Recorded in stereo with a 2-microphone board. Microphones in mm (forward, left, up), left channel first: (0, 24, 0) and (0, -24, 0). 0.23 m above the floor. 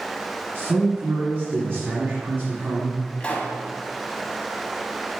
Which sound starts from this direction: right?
A man speaking, at 0.6 s.